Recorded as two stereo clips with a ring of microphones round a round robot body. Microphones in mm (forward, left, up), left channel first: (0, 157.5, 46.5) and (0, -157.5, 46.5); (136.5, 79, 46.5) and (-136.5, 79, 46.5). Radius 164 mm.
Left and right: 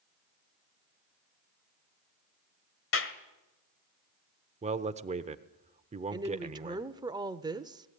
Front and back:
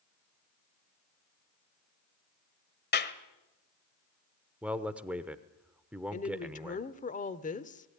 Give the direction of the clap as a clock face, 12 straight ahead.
10 o'clock.